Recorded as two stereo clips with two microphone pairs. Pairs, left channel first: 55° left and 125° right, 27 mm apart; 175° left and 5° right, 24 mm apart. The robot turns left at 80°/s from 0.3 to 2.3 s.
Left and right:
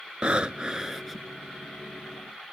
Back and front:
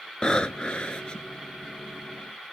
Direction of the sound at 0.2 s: 150° right.